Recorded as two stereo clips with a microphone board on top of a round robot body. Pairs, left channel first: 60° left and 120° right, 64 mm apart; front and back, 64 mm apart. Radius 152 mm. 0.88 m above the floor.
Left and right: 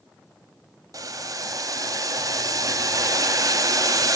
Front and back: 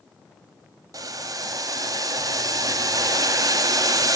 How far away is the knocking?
I don't hear knocking.